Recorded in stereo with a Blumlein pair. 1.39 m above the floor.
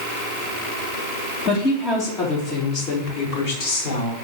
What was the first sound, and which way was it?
A woman speaking, 30° left.